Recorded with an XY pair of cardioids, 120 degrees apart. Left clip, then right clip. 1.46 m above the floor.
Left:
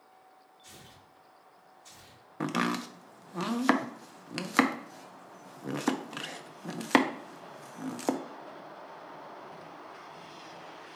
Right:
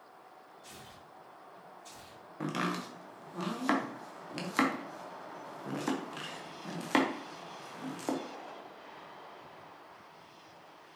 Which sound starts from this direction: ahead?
Tearing paper, at 0.6 s.